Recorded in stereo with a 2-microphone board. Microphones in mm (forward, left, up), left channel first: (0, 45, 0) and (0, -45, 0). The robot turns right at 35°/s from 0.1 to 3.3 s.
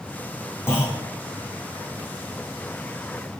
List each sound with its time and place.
0.7 s a clunk: 25° left (ahead or behind), 4.5 m; by 1.0 s 15° left (ahead or behind), 4.5 m